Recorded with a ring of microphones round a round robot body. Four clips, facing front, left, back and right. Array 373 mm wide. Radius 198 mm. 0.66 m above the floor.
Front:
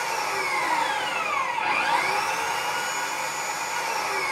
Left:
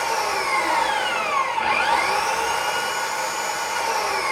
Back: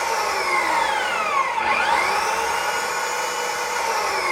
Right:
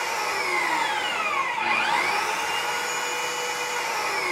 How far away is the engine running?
About 0.7 m.